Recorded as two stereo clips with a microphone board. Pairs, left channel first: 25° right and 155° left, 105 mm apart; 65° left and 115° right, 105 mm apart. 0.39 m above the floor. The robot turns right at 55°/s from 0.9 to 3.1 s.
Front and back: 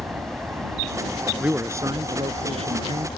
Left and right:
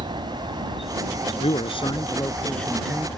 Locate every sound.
0.0 s an aircraft: 125° right; by 3.2 s 5° right
1.4 s a man speaking: 80° left; by 3.1 s 170° left